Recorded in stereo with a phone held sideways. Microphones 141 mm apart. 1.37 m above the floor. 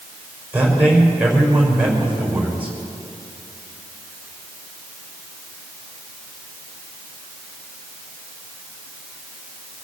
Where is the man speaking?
10° right (ahead or behind), 5 m.